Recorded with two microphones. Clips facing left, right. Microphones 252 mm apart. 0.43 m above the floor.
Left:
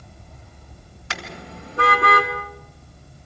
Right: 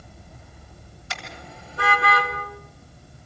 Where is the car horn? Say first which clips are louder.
Left 5 dB; 85° left, 2 m; by 2.3 s 55° left (ahead or behind), 2 m.